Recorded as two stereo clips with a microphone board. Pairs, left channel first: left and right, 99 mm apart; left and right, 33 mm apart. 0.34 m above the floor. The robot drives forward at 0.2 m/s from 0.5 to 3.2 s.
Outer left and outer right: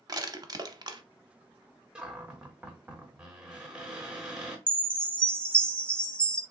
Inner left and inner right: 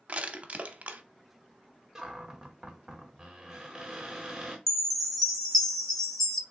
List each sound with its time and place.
0.1 s crushing: 40° right (ahead or behind), 0.6 m; by 1.0 s 50° right (ahead or behind), 0.5 m
1.9 s a cupboard door: 10° right (ahead or behind), 1.0 m
4.7 s a chime: 10° left (ahead or behind), 0.7 m